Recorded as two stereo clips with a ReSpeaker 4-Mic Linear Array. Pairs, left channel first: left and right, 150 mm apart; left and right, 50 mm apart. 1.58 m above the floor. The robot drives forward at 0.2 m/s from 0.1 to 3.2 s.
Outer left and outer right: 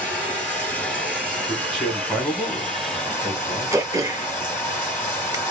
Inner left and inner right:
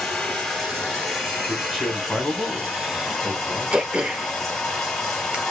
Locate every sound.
0.0 s running water: 10° left (ahead or behind), 2.5 m; by 5.5 s 5° left (ahead or behind), 3 m
1.5 s a man speaking: centre (ahead or behind), 2 m
3.7 s throat clearing: 20° right (ahead or behind), 0.7 m